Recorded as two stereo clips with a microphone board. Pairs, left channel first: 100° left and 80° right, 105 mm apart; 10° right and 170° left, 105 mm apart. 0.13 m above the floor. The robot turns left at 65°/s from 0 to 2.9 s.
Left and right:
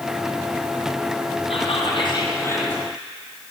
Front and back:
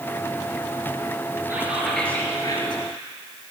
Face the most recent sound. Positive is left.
turn(degrees=15)